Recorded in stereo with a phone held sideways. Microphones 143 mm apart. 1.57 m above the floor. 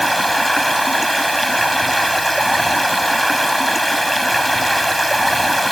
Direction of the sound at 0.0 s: Centre (ahead or behind).